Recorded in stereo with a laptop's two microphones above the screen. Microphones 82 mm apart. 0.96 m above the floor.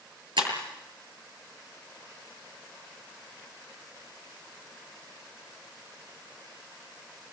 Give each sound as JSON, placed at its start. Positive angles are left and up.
{"t": 0.4, "sound": "breaking glass", "side_deg": -80, "distance_m": 7.5}